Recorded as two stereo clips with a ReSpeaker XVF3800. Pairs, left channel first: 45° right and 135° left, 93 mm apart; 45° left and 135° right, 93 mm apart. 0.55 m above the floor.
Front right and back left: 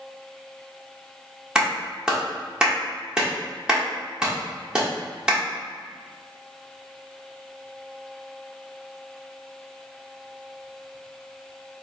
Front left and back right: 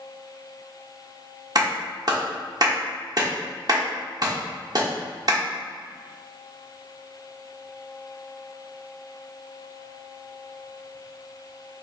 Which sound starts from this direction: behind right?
A clap, at 1.6 s.